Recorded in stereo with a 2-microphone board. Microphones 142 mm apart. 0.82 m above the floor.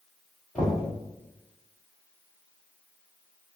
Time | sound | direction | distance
0.6 | knocking | 10° left (ahead or behind) | 1.7 m